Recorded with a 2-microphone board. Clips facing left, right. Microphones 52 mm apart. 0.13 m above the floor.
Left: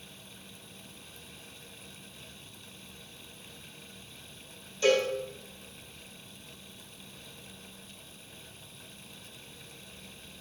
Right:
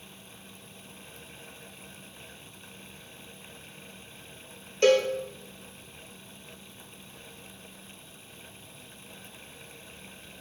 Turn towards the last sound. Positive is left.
turn(degrees=-75)  # may be behind; listen again after turning